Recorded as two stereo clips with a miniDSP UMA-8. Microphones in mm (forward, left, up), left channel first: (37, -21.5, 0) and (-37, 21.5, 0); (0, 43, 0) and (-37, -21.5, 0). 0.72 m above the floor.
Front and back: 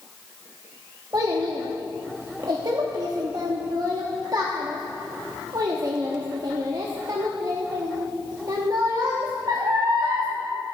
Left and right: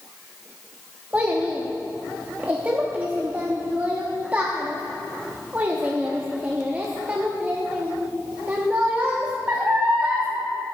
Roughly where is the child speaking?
Behind.